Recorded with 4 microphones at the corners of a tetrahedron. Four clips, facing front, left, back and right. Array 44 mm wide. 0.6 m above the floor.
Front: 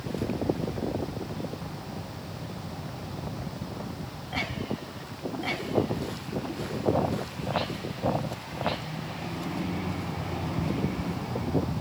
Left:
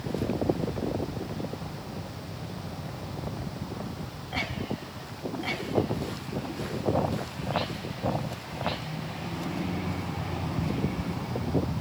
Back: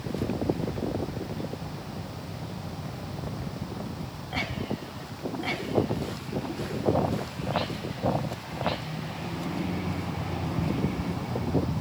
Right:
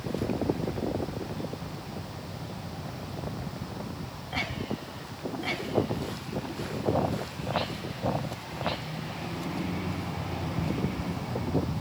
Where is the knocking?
No knocking in this recording.